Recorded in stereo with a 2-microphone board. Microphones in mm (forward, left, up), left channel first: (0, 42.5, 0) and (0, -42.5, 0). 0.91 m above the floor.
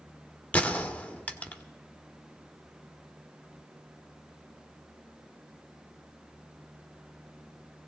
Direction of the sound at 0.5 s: 15° left (ahead or behind).